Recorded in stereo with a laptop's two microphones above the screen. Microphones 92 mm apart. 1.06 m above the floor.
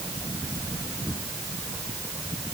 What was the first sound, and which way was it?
Only background noise.